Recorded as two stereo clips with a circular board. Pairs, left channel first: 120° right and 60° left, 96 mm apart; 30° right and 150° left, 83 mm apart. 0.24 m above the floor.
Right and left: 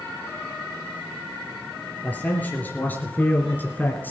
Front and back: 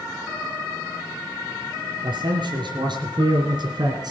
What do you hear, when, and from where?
2.0 s a man speaking: 170° left, 4 m